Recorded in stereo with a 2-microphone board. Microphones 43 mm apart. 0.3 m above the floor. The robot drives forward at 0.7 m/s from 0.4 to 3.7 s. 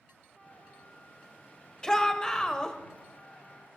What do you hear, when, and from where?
1.8 s a shout: 15° left (ahead or behind), 1.1 m